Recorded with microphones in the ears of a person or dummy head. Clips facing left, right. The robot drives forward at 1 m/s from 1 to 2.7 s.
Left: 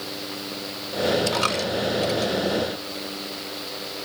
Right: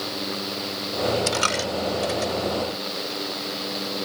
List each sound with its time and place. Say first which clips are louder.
1.3 s a dropped coin: left 1 dB; 25° right (ahead or behind); by 2.3 s 15° right (ahead or behind)